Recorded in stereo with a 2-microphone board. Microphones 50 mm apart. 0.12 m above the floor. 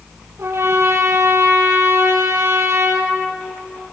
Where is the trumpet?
55° right (ahead or behind), 3.5 m.